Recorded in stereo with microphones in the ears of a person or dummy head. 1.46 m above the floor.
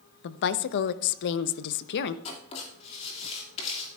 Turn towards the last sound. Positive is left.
turn(degrees=35)  # may be behind; listen again after turning